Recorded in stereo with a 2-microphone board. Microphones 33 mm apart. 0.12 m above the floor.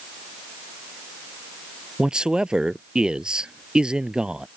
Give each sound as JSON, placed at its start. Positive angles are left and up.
{"t": 2.0, "sound": "a man speaking", "side_deg": -25}